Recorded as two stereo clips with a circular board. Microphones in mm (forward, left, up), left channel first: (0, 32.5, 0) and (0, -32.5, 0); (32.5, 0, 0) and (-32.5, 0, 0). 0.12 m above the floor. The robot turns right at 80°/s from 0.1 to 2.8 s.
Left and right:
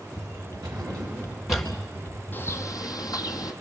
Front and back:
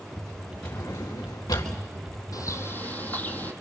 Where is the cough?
I don't hear a cough.